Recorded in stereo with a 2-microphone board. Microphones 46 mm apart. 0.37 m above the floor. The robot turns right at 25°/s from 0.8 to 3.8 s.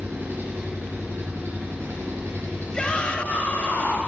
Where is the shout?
20° left (ahead or behind), 1.8 m; by 4.0 s 40° left (ahead or behind), 1.8 m.